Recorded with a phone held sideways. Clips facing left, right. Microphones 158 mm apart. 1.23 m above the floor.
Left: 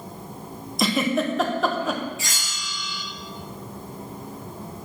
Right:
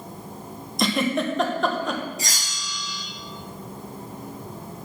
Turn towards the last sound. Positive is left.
turn(degrees=-40)  # may be behind; listen again after turning